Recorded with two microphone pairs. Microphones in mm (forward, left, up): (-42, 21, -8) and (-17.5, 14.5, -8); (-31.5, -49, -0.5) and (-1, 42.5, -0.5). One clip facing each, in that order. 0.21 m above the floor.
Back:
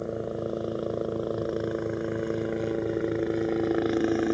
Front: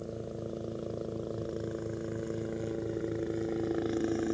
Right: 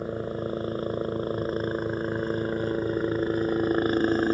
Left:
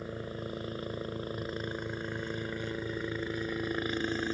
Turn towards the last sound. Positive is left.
turn(degrees=-145)